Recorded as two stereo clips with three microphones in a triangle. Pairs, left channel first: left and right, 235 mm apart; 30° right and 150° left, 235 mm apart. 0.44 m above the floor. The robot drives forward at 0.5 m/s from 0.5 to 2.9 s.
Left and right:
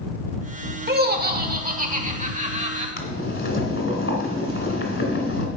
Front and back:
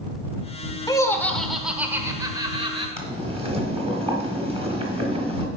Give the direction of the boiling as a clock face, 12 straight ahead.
9 o'clock.